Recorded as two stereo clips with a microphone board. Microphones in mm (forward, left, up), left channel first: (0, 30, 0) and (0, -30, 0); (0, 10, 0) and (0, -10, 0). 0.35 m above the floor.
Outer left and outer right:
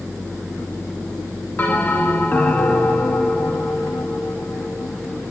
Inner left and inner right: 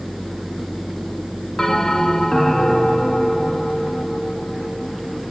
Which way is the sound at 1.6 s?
25° left (ahead or behind).